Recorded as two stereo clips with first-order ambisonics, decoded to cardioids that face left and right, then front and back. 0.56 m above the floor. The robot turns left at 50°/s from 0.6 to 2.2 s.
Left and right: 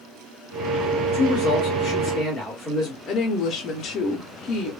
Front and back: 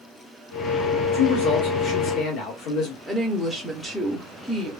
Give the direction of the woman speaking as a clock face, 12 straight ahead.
9 o'clock.